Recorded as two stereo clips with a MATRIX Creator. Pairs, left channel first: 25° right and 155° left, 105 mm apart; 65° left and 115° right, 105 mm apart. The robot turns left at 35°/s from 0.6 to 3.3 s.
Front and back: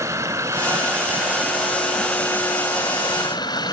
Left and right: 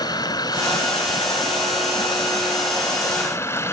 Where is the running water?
105° left, 1.6 m; by 3.7 s 10° left, 1.6 m.